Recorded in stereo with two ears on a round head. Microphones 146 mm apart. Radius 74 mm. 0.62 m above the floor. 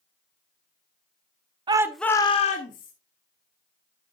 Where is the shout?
30° right (ahead or behind), 0.7 m; by 2.9 s 55° left (ahead or behind), 1.2 m.